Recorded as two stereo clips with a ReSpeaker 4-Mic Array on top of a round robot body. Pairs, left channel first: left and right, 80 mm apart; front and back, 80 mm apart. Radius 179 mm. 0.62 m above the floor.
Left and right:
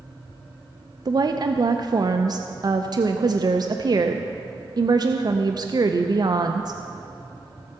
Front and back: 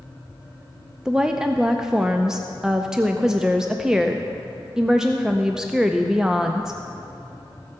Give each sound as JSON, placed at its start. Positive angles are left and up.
{"t": 1.1, "sound": "a woman speaking", "azimuth_deg": -100, "distance_m": 0.7}